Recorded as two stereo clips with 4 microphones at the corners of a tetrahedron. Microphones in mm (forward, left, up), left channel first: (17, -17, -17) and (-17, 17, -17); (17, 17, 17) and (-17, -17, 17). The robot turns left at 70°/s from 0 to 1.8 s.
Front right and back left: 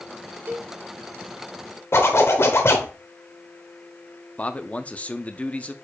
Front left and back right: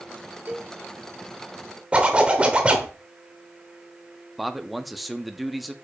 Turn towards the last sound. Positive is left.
turn(degrees=-50)